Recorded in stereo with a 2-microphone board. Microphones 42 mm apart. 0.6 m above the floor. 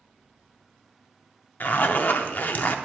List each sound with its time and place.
1.6 s a zipper: 45° left (ahead or behind), 0.5 m